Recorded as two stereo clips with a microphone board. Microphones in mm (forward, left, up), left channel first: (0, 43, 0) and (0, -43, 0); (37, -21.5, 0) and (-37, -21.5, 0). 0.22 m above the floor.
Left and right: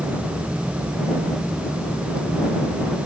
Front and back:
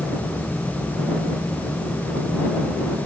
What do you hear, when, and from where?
Only background noise.